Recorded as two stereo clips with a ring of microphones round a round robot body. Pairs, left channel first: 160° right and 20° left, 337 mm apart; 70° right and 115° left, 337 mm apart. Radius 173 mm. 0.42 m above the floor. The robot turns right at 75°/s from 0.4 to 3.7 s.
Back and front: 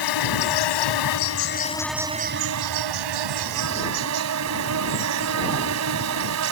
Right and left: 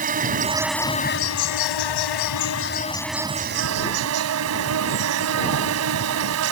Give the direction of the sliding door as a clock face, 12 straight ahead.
I don't hear a sliding door.